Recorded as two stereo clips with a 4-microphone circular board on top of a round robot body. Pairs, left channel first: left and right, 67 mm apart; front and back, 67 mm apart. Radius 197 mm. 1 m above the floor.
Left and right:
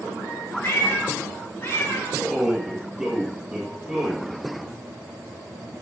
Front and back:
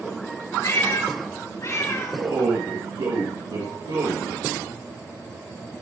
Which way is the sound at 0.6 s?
30° left.